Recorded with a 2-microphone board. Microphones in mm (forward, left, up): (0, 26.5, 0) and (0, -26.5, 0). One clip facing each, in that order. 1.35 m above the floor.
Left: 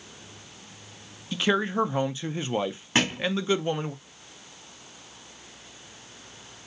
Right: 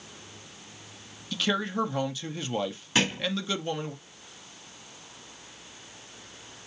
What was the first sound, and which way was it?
A man speaking, 25° left (ahead or behind).